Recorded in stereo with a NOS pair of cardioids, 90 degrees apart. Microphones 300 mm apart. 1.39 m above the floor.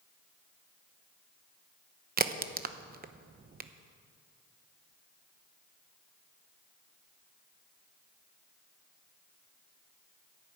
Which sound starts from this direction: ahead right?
A crack, at 2.2 s.